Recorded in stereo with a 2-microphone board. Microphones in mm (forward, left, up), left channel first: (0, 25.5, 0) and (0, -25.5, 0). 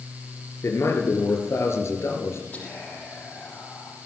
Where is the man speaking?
65° left (ahead or behind), 3.5 m.